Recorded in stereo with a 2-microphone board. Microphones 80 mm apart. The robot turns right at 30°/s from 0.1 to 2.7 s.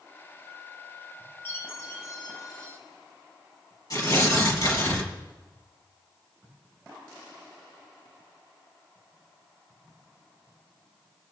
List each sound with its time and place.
1.4 s a chime: 30° left, 2.5 m; by 2.8 s 70° left, 2.5 m
3.9 s tearing paper: 50° left (ahead or behind), 3 m